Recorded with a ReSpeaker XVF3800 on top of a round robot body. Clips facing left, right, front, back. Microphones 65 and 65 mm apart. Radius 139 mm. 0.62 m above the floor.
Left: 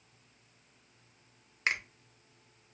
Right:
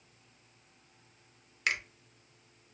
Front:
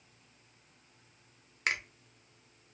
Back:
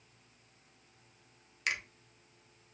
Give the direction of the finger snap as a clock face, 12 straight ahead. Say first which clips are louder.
Even, front 2 dB; 11 o'clock.